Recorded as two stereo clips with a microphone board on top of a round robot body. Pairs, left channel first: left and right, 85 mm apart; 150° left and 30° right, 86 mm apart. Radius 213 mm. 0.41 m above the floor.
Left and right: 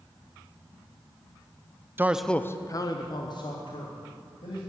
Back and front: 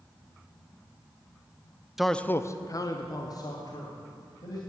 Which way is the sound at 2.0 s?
110° right.